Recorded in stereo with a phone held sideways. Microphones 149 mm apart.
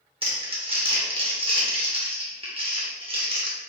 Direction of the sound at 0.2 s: 40° right (ahead or behind).